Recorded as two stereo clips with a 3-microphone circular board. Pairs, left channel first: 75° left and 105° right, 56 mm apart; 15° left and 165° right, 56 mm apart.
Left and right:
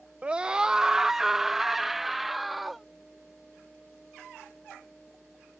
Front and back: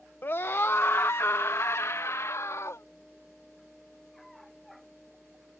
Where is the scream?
40° right; by 2.9 s 15° right.